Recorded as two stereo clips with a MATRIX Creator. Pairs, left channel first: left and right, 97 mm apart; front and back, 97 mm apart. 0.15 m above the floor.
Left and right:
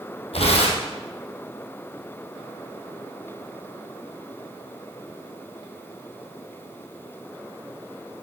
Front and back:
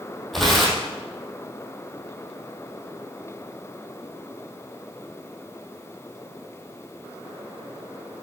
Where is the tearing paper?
90° left, 3 m.